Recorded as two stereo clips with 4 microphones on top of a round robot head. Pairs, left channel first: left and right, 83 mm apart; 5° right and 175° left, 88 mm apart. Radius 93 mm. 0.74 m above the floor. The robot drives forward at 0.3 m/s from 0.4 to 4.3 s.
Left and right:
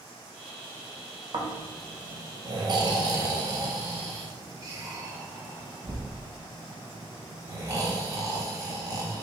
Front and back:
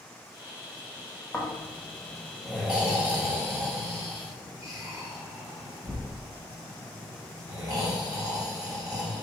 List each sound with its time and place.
1.3 s snoring: 75° right, 0.9 m; by 9.2 s 135° right, 1.1 m